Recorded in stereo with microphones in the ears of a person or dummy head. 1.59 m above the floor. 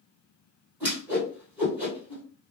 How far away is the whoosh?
About 1.8 m.